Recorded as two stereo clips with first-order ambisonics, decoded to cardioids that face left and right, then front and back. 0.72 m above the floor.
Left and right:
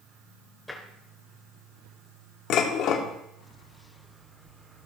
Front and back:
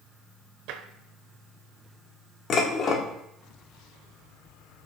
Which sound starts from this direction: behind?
Tapping, at 0.7 s.